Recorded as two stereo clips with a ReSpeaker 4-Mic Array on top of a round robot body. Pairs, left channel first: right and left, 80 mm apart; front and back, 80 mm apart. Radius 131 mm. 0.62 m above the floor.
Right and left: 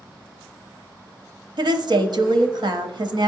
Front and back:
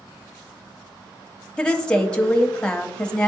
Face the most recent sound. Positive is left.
turn(degrees=80)